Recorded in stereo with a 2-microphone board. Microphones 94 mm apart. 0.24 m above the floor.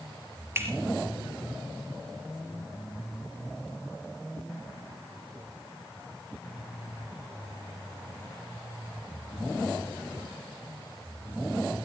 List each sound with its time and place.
0.6 s a finger snap: 25° right (ahead or behind), 3 m